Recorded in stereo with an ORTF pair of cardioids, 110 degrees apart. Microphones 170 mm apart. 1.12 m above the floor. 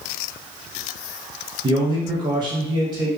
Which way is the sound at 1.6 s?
30° right.